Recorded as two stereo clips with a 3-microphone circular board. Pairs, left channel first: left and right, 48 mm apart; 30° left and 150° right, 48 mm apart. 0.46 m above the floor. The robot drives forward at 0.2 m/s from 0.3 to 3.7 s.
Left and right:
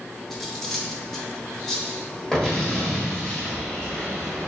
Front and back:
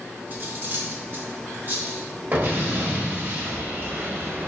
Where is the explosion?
165° left, 1.1 m.